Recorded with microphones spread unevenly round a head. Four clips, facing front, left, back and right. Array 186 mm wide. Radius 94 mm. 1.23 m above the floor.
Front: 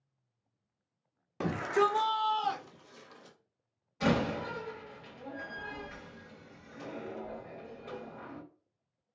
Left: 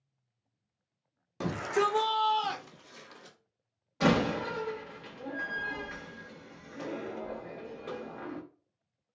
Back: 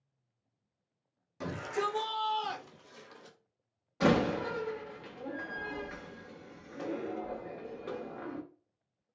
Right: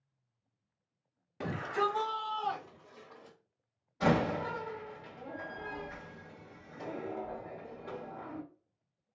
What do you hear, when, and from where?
1.4 s a shout: 25° left, 0.5 m; by 3.4 s 120° left, 1.4 m
4.0 s a door slam: 150° left, 1.0 m